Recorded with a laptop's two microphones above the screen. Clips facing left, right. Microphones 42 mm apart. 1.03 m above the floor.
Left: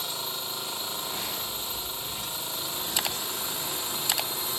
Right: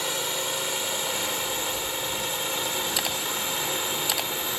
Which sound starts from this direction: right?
A drone, at 0.0 s.